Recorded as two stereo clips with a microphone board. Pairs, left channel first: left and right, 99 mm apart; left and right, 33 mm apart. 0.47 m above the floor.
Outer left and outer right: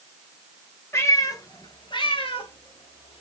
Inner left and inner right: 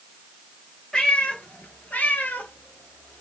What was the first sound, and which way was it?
A cat meowing, 25° left (ahead or behind).